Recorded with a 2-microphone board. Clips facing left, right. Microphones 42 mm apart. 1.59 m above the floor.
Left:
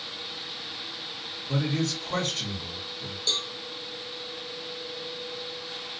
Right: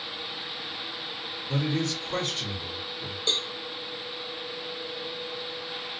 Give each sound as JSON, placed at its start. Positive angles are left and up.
{"t": 1.5, "sound": "a man speaking", "side_deg": 80, "distance_m": 1.8}
{"t": 3.3, "sound": "a cowbell", "side_deg": -30, "distance_m": 0.5}